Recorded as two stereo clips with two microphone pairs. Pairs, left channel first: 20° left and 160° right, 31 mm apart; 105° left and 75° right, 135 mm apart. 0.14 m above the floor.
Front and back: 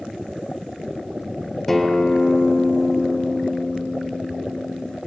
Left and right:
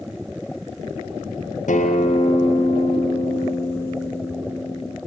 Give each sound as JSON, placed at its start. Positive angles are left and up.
{"t": 1.7, "sound": "a guitar", "azimuth_deg": 100, "distance_m": 2.0}